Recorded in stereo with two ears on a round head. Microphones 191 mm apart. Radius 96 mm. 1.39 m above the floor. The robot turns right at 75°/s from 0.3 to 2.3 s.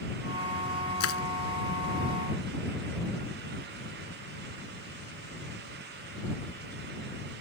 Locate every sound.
1.0 s crushing: 80° left; by 1.2 s 70° left (ahead or behind)